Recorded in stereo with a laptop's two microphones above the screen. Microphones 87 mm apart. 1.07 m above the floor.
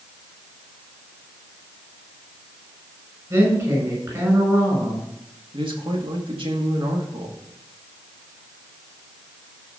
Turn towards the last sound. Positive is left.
turn(degrees=-75)  # may be behind; listen again after turning